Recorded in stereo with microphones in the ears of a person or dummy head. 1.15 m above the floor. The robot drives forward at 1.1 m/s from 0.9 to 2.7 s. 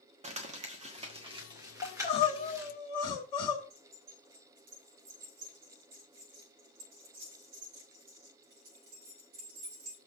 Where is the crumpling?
40° right (ahead or behind), 1.2 m; by 2.7 s 15° right (ahead or behind), 3 m.